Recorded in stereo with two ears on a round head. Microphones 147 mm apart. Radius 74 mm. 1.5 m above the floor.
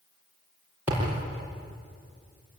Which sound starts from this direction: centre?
A thud, at 0.9 s.